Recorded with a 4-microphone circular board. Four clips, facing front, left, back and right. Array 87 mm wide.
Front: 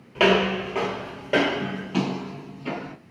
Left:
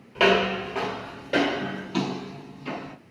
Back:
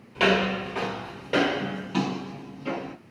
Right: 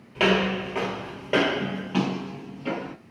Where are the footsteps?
10° left, 1.6 m; by 3.0 s 90° right, 2 m.